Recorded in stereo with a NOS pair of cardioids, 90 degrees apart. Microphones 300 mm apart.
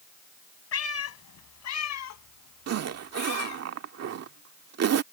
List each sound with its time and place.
0.7 s a cat meowing: 50° left; by 3.6 s 80° left
2.7 s a zipper: 55° right